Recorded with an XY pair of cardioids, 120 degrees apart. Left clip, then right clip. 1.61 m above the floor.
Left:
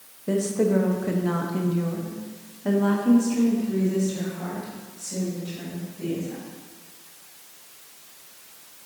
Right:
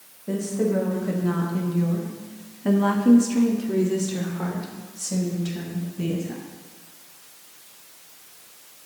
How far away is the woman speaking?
About 1.5 m.